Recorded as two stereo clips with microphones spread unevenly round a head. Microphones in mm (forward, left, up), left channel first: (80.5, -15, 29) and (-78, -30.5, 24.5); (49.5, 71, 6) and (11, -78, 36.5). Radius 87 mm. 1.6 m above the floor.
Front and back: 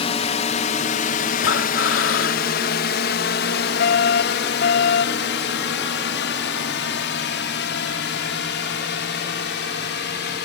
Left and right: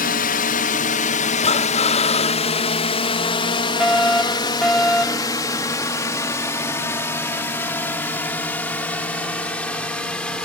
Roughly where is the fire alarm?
Ahead.